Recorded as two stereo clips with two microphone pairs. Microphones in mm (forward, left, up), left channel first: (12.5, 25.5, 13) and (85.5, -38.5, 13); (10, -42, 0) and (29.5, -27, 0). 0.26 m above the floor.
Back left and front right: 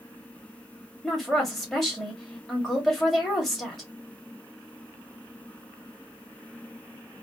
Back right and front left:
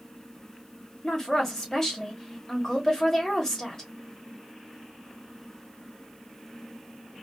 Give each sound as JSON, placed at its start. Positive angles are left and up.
{"t": 1.0, "sound": "a woman speaking", "azimuth_deg": -130, "distance_m": 1.4}